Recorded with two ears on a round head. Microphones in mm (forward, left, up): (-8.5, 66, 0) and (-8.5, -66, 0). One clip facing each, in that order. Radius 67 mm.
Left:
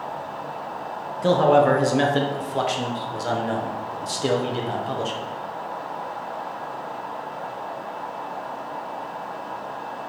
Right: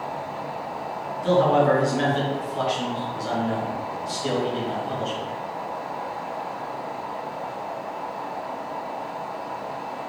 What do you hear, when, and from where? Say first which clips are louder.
1.2 s a man speaking: left 2 dB; 60° left (ahead or behind), 0.8 m